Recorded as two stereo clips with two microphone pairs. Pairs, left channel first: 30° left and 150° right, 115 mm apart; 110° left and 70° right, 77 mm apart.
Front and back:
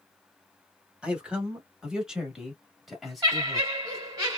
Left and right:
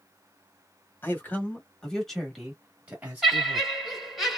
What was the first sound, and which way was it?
A man speaking, 140° left.